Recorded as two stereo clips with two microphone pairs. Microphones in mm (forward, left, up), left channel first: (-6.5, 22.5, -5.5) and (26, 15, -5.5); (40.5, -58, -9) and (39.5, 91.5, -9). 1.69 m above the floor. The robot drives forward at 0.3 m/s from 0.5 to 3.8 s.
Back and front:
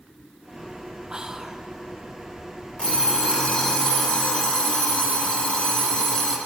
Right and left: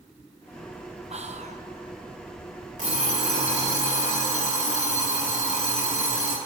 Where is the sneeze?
I don't hear a sneeze.